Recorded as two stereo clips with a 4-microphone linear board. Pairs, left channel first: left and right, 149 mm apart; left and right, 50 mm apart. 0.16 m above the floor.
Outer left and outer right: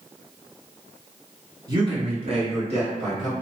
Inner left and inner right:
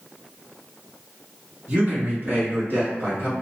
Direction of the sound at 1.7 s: 30° right (ahead or behind).